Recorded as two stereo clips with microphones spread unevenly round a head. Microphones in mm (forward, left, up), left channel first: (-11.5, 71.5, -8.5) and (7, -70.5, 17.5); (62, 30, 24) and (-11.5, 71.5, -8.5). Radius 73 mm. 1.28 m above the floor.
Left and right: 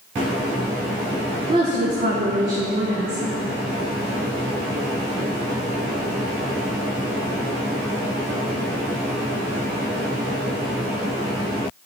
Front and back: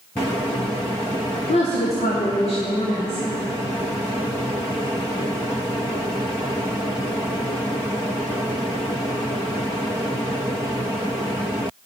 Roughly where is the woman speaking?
Ahead.